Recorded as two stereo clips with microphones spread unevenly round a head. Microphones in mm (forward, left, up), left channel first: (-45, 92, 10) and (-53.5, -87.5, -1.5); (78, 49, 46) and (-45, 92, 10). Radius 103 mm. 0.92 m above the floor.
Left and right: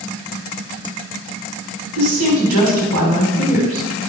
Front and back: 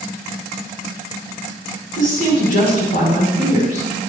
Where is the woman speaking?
75° right, 6 m.